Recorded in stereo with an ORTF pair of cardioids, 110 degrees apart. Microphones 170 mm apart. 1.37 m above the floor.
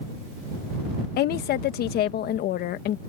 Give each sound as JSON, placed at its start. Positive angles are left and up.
{"t": 1.2, "sound": "a woman speaking", "azimuth_deg": 70}